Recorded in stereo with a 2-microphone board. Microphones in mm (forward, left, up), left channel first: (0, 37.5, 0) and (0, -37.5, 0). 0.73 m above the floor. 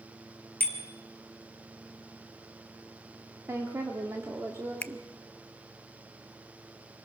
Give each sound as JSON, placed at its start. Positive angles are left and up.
{"t": 0.6, "sound": "a bicycle bell", "side_deg": -30, "distance_m": 3.0}
{"t": 3.5, "sound": "a woman speaking", "side_deg": -35, "distance_m": 1.7}
{"t": 4.8, "sound": "a finger snap", "side_deg": 20, "distance_m": 0.5}